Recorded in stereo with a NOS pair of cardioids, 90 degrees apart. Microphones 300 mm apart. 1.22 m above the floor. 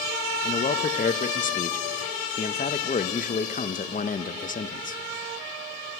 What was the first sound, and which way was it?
A man speaking, 25° left.